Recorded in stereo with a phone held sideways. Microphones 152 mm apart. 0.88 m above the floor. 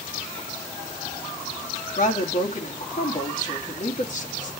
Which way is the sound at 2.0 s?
55° left (ahead or behind).